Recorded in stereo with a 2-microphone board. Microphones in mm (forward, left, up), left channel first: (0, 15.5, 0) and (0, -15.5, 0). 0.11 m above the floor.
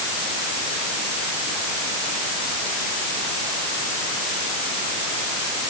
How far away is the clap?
I don't hear a clap.